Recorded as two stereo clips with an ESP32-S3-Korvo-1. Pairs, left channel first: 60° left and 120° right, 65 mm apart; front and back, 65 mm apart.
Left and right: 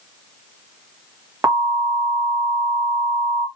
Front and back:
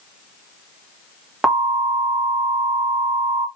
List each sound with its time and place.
1.4 s an alarm: 100° right, 2.5 m